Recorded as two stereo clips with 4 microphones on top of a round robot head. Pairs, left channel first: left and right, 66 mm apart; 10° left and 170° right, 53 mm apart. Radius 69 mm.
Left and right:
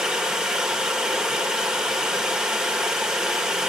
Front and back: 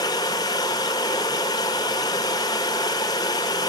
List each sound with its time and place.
0.0 s running water: 10° right, 1.9 m